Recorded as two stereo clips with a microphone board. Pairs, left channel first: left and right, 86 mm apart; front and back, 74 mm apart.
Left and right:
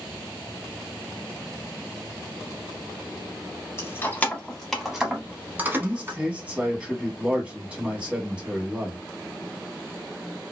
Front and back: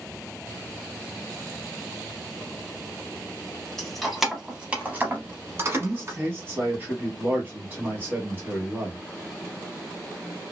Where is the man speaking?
155° right, 1.2 m.